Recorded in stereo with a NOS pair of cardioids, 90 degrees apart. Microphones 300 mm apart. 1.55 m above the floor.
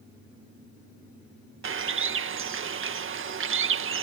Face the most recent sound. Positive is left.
turn(degrees=-45)